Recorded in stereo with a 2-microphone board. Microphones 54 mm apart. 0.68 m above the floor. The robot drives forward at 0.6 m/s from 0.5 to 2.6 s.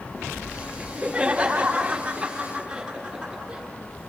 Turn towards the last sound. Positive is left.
turn(degrees=-20)  # may be behind; listen again after turning